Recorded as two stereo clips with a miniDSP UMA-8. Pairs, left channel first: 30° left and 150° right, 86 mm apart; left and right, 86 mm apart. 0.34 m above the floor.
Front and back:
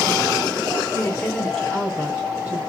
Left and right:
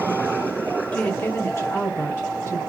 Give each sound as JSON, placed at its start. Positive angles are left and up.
{"t": 0.9, "sound": "a woman speaking", "azimuth_deg": 30, "distance_m": 0.9}